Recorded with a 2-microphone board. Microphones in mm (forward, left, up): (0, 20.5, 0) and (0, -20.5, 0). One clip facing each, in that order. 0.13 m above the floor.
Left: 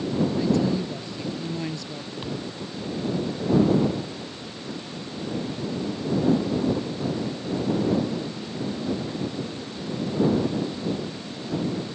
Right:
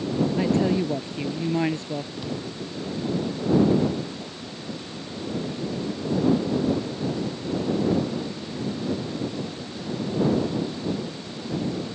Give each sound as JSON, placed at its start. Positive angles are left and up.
{"t": 0.4, "sound": "a woman speaking", "side_deg": -35}
{"t": 2.2, "sound": "a thud", "side_deg": 25}